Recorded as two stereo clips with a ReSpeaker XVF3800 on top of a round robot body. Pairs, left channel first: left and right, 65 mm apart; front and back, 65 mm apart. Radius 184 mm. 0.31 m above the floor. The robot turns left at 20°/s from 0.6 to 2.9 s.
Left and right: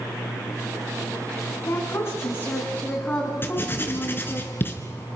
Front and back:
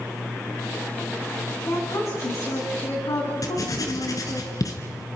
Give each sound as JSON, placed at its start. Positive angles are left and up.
{"t": 1.6, "sound": "a woman speaking", "azimuth_deg": 45, "distance_m": 4.0}
{"t": 3.4, "sound": "writing", "azimuth_deg": 30, "distance_m": 2.5}